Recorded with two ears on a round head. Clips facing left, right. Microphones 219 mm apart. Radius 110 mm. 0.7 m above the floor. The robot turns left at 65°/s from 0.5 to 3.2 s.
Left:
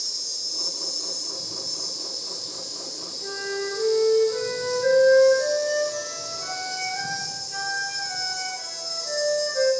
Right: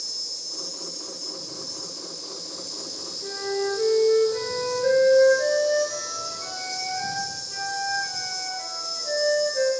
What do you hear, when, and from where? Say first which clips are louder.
0.0 s an insect: even; 155° left, 0.9 m; by 9.8 s 20° right, 0.9 m
3.2 s a flute: right 3 dB; centre (ahead or behind), 2.0 m